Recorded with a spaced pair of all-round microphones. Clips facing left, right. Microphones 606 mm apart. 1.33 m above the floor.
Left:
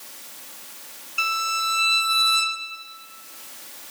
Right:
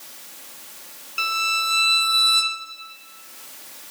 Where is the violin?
60° right (ahead or behind), 0.9 m.